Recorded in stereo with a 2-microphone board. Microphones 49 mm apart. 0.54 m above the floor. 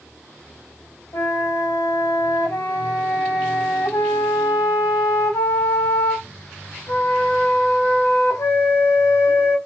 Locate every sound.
1.1 s a flute: 70° left (ahead or behind), 0.8 m